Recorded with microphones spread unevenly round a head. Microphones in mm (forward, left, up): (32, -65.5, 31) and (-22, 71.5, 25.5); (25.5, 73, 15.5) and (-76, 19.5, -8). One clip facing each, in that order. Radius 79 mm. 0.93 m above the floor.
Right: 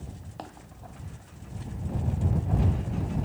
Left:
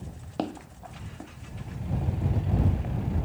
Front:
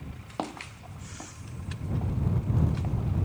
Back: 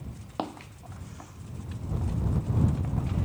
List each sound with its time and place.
0.4 s footsteps: 110° left; by 3.0 s 75° left